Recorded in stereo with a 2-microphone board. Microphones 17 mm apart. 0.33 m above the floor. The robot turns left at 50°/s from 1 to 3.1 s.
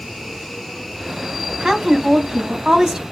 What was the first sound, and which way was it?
A woman speaking, 60° right.